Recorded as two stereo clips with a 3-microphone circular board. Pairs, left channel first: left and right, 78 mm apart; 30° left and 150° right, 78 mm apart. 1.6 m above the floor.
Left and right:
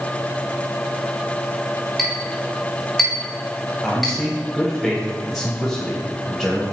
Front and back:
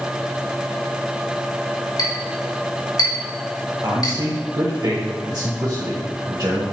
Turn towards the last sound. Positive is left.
turn(degrees=180)